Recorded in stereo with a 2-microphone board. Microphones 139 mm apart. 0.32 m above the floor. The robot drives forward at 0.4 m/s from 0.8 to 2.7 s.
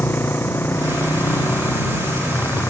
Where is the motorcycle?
15° left (ahead or behind).